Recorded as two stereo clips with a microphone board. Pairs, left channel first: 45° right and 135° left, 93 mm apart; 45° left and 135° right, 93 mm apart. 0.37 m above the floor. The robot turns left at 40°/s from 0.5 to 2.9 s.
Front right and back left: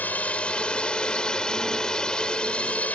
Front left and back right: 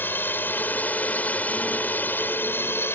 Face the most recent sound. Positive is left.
turn(degrees=15)